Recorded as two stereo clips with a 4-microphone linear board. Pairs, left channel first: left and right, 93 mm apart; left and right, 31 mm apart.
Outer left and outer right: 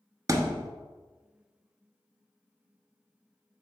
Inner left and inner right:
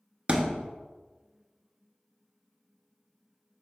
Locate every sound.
0.3 s a thud: 40° right (ahead or behind), 0.8 m